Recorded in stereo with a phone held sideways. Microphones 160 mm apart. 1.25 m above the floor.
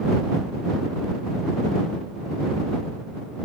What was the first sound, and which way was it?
Only background noise.